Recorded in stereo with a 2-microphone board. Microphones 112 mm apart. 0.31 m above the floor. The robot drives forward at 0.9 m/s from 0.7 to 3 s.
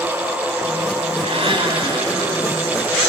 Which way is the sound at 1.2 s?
65° right (ahead or behind).